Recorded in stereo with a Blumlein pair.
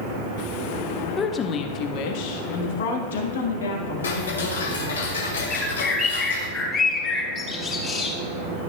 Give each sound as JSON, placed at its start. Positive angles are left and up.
{"t": 1.2, "sound": "a woman speaking", "azimuth_deg": 15, "distance_m": 1.1}
{"t": 4.0, "sound": "ticking", "azimuth_deg": 65, "distance_m": 2.0}
{"t": 5.5, "sound": "a bird", "azimuth_deg": 25, "distance_m": 4.0}